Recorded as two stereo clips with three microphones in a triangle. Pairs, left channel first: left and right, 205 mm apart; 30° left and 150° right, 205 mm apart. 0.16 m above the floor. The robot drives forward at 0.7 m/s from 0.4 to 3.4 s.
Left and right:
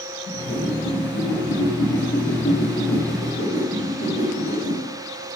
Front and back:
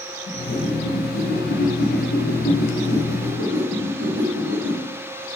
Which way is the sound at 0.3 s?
65° left.